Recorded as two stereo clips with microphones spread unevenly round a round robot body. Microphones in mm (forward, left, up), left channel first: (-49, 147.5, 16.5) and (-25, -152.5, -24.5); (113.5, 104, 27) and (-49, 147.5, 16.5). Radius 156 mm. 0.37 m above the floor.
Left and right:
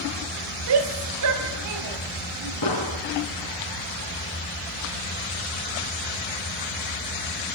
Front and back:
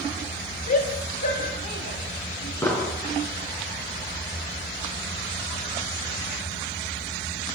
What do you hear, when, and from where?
0.7 s a shout: 60° right, 1.4 m; by 2.5 s 70° right, 3 m
2.6 s an explosion: 60° left, 6.5 m